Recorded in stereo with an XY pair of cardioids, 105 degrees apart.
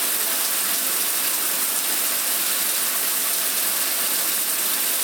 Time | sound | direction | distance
0.0 | running water | 15° right | 0.7 m